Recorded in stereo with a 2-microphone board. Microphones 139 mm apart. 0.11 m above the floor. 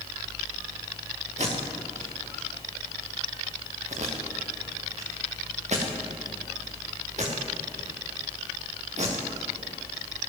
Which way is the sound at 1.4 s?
55° right (ahead or behind).